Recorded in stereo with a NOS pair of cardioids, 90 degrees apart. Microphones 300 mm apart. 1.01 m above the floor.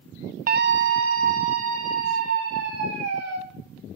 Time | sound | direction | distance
0.5 | a scream | 30° right | 0.5 m